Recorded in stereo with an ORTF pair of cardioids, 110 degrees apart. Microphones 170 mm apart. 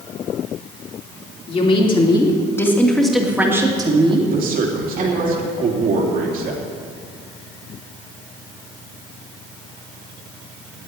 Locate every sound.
1.5 s a woman speaking: 35° left, 3 m; by 5.3 s 55° right, 3 m
4.3 s a man speaking: 60° right, 3 m